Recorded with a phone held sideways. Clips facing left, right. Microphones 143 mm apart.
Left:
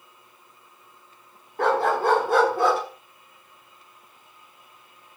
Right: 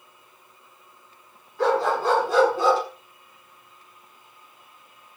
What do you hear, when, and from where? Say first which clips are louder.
1.6 s a dog barking: even; 55° left (ahead or behind), 7 m; by 2.8 s 60° left (ahead or behind), 6.5 m